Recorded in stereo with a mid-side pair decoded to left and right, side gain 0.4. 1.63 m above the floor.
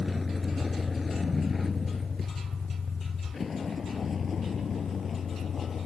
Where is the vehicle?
20° left; by 5.9 s 50° left.